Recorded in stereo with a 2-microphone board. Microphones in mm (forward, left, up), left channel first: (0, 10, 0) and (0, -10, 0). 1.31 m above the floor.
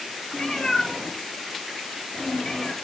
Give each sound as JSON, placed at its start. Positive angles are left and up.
{"t": 0.3, "sound": "a cat meowing", "side_deg": 35, "distance_m": 5.5}